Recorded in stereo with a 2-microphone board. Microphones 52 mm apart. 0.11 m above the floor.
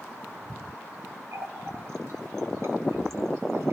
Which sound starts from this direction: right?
A running tap, at 1.3 s.